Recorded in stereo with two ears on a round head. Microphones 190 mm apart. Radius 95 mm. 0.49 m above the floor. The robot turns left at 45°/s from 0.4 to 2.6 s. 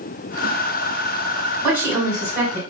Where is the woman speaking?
5° right, 1.7 m; by 2.6 s 50° right, 1.7 m.